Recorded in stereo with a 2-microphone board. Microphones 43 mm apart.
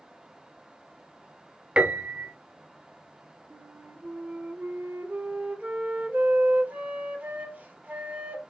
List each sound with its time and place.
1.8 s a piano: 25° right (ahead or behind), 0.6 m
3.5 s a flute: 40° right (ahead or behind), 0.8 m